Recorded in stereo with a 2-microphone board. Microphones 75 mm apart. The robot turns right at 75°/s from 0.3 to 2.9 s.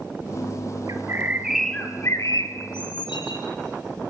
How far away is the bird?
About 1.7 m.